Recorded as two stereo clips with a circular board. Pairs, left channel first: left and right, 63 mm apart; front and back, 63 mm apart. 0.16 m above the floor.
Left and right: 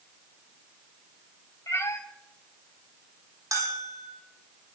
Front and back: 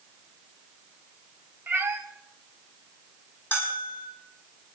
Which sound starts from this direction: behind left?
A cat meowing, at 1.7 s.